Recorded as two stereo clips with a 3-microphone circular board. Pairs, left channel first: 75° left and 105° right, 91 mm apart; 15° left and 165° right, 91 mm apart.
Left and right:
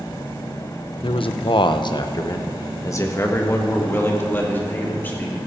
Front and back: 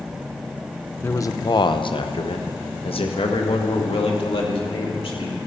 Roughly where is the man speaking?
Left.